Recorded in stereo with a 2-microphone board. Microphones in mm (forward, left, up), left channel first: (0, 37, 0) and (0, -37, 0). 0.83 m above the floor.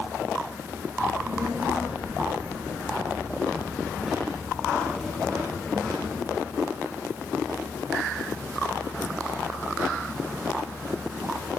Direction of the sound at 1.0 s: 35° right (ahead or behind).